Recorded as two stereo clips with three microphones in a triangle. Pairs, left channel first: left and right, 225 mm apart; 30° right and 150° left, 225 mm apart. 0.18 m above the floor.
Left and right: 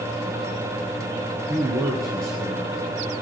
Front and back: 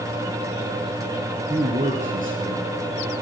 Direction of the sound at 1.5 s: 145° right.